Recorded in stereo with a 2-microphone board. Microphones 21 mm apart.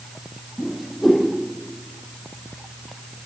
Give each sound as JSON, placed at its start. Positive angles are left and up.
{"t": 0.6, "sound": "a whoosh", "side_deg": -5, "distance_m": 7.0}